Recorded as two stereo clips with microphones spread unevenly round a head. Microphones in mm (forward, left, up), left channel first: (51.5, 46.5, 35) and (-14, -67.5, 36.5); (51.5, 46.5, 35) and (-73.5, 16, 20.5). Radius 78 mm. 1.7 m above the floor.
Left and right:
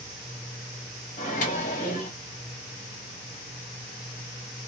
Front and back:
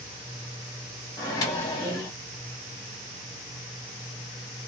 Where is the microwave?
60° left, 1.2 m.